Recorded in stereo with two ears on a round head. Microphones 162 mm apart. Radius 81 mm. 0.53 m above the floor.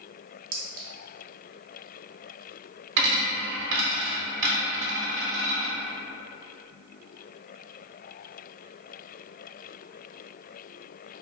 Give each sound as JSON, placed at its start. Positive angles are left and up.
{"t": 0.5, "sound": "a clink", "side_deg": -50, "distance_m": 0.6}
{"t": 3.0, "sound": "a dropped coin", "side_deg": -65, "distance_m": 0.7}